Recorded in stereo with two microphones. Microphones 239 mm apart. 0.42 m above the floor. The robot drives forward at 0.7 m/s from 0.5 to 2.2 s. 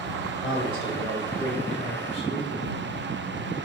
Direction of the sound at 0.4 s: 20° left (ahead or behind).